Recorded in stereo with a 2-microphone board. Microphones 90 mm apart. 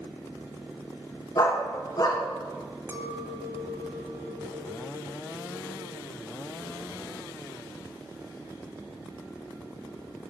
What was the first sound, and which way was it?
A dog barking, 45° left (ahead or behind).